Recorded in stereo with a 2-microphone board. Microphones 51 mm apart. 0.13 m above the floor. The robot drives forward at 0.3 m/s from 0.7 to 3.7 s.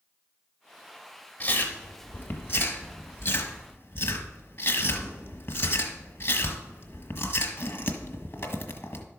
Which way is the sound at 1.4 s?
40° left (ahead or behind).